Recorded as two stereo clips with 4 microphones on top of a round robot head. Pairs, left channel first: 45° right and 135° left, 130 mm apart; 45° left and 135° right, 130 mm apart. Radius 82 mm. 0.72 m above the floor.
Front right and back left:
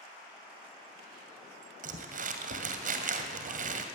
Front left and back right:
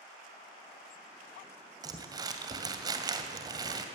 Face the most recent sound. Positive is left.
turn(degrees=160)